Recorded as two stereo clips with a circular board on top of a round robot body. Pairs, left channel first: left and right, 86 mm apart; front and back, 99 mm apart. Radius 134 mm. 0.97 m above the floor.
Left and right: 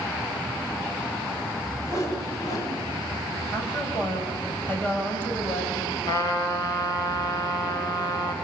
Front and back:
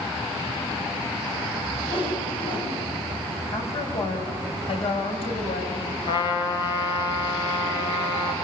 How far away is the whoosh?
About 5.5 m.